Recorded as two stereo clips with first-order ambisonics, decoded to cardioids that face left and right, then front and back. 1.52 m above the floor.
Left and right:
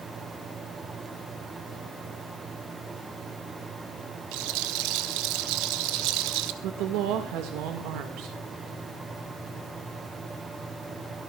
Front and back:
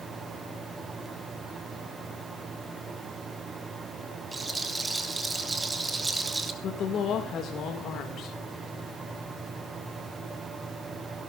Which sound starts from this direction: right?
A rattle, at 4.3 s.